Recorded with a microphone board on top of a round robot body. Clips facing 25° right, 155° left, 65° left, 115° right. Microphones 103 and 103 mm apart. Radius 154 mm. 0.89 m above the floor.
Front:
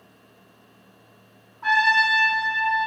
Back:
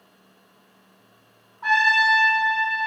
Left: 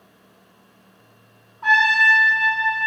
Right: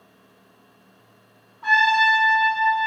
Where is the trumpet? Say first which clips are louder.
Even, even; 80° left, 1.5 m.